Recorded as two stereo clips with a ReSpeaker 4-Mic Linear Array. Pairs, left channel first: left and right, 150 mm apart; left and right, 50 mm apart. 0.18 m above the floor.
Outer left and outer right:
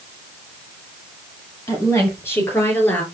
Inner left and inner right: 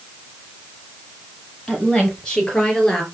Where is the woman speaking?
20° left (ahead or behind), 5 m; by 3.0 s 10° left (ahead or behind), 3.5 m.